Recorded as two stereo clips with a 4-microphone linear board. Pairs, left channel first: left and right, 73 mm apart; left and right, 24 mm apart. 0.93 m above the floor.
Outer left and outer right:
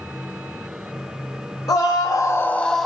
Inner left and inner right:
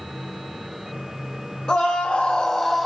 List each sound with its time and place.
1.7 s a scream: 55° left (ahead or behind), 0.8 m; by 2.9 s centre (ahead or behind), 0.8 m